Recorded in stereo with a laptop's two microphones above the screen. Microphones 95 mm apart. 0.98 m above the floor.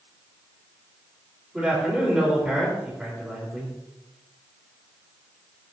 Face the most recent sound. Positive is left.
turn(degrees=-10)  # may be behind; listen again after turning